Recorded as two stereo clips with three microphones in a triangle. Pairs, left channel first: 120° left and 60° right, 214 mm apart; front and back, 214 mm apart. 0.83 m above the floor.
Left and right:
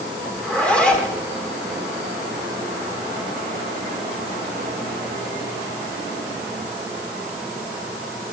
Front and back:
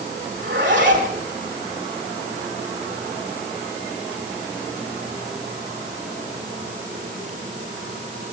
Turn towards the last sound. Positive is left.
turn(degrees=-155)